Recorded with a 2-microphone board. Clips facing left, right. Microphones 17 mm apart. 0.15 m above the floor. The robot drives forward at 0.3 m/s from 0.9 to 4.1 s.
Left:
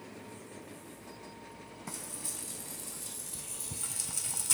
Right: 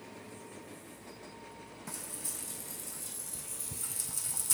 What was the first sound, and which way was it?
Frying, 15° left (ahead or behind).